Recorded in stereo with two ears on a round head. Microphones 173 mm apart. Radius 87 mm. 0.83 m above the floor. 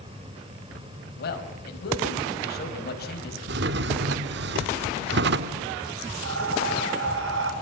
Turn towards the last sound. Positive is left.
turn(degrees=-75)  # may be behind; listen again after turning